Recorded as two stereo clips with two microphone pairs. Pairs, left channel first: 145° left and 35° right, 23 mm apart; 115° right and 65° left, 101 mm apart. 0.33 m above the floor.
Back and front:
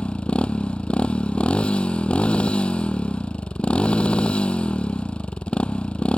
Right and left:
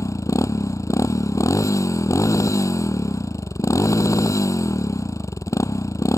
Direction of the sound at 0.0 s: Straight behind.